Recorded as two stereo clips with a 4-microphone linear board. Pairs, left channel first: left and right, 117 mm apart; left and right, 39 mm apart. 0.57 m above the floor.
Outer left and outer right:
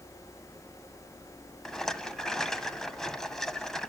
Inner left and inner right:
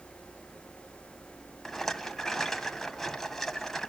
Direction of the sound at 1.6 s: 5° left (ahead or behind).